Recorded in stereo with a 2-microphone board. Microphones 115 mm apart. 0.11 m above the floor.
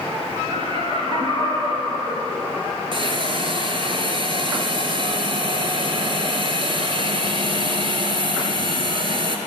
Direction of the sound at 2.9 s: 50° right (ahead or behind).